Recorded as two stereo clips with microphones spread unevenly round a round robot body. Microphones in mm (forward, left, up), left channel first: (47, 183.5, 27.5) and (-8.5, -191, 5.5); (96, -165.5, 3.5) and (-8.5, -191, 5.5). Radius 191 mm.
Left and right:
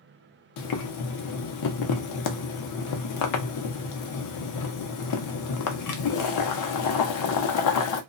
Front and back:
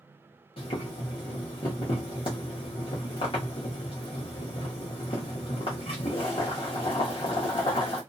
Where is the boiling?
55° left, 0.6 m.